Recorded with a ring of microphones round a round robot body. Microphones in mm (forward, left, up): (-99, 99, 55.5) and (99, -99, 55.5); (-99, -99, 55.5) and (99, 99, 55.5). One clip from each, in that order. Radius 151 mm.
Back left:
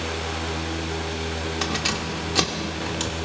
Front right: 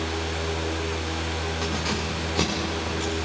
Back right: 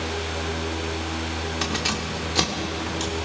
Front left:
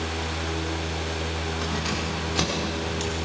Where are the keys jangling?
Straight behind, 2 m; by 3.1 s 135° left, 3 m.